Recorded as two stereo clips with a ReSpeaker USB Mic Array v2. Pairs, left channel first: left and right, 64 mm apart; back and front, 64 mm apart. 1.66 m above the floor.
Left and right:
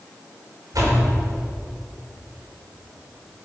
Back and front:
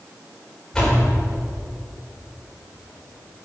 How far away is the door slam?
About 4.5 m.